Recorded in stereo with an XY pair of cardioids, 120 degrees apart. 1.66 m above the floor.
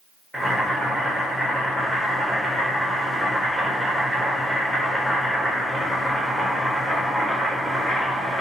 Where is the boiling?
5° left, 1.2 m.